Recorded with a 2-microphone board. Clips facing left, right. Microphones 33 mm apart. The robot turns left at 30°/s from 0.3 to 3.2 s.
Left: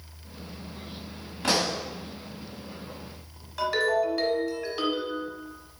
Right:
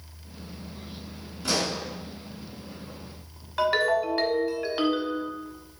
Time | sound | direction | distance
1.4 | a pop | 60° left (ahead or behind) | 2 m
3.6 | a ringtone | 30° right (ahead or behind) | 1.6 m